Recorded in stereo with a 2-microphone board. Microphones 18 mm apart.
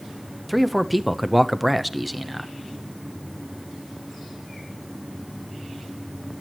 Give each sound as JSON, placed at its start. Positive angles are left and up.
{"t": 0.5, "sound": "a man speaking", "side_deg": -10, "distance_m": 0.9}